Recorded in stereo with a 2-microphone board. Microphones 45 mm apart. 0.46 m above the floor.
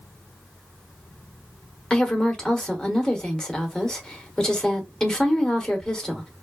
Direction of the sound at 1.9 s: 15° left (ahead or behind).